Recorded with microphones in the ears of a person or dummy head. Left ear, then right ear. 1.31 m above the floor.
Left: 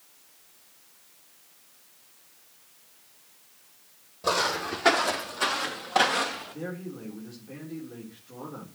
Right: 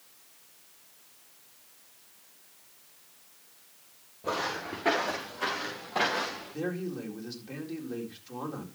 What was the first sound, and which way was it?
Footsteps, 60° left (ahead or behind).